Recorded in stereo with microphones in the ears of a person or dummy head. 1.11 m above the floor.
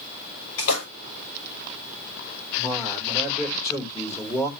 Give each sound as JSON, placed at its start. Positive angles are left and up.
{"t": 0.6, "sound": "a splash", "side_deg": 80, "distance_m": 6.0}
{"t": 2.6, "sound": "a man speaking", "side_deg": 20, "distance_m": 3.0}